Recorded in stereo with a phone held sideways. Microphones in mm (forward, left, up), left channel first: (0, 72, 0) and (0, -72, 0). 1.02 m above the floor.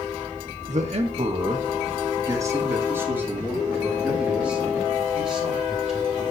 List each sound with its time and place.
0.7 s a man speaking: 55° right (ahead or behind), 1.2 m; by 6.2 s centre (ahead or behind), 4.5 m